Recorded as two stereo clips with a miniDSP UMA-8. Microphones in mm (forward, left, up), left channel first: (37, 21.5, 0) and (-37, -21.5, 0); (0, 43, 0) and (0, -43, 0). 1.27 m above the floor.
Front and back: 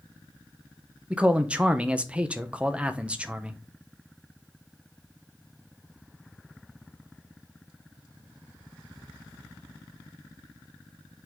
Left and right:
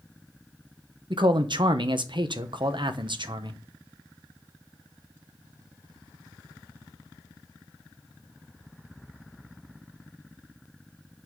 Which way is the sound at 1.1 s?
75° right.